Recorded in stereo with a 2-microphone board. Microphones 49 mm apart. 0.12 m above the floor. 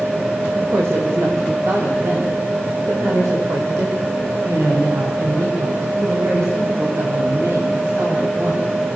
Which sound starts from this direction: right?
A woman speaking, at 0.6 s.